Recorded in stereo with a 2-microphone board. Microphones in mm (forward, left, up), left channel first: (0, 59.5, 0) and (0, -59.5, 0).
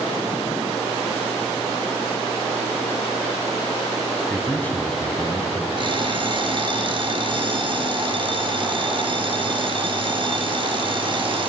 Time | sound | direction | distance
4.3 | a man speaking | 20° left (ahead or behind) | 3 m
5.8 | an alarm clock | 45° right (ahead or behind) | 2.5 m